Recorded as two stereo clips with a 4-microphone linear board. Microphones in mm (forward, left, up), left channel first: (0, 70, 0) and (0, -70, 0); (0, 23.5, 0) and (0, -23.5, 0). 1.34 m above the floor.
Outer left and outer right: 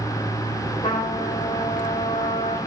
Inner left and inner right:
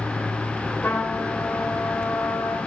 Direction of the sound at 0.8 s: 65° left (ahead or behind).